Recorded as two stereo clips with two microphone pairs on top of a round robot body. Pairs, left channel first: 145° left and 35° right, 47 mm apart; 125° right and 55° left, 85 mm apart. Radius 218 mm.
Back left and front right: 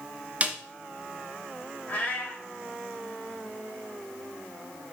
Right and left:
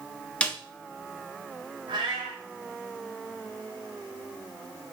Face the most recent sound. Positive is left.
turn(degrees=85)